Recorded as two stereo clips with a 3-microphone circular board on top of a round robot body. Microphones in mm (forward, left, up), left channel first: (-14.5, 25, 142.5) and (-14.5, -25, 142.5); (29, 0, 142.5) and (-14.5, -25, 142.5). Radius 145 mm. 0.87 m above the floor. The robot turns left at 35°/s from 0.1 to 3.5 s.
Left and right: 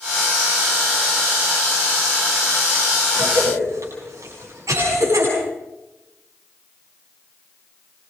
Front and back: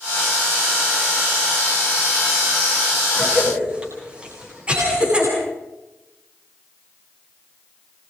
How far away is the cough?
About 9.5 m.